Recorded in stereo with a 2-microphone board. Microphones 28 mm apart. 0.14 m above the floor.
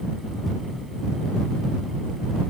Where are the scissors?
No scissors in this recording.